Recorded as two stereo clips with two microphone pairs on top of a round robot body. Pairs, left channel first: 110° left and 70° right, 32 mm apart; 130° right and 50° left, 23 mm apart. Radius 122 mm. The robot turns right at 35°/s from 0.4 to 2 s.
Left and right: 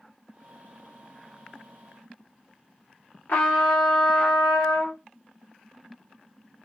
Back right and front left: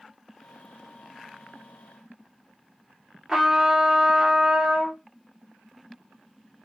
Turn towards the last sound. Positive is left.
turn(degrees=125)